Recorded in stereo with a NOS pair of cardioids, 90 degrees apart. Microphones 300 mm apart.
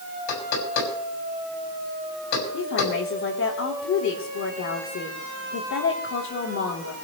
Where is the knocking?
70° left, 6 m.